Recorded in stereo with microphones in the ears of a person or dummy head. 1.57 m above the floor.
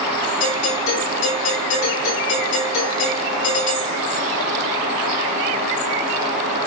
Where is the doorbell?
65° left (ahead or behind), 7 m.